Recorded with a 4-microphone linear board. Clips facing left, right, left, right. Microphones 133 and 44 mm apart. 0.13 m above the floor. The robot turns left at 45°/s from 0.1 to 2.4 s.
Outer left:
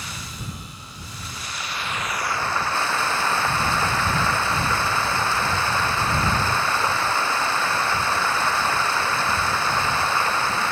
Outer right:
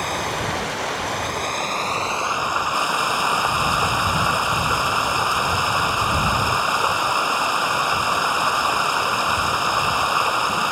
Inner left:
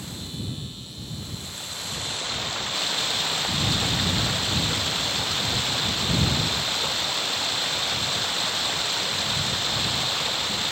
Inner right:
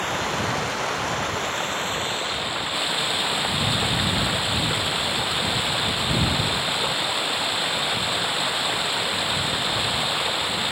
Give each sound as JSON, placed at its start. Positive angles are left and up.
{"t": 0.0, "sound": "running water", "azimuth_deg": -60}